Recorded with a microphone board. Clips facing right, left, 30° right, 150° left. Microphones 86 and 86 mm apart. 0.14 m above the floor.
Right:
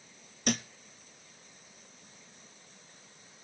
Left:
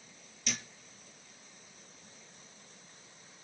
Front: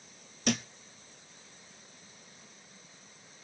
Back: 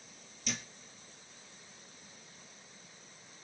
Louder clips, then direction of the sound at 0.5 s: Right 10 dB, front 11 dB; 55° right.